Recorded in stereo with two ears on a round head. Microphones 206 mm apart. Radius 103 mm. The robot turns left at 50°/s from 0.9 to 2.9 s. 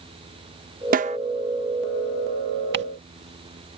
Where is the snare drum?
40° right (ahead or behind); by 1.2 s 25° right (ahead or behind).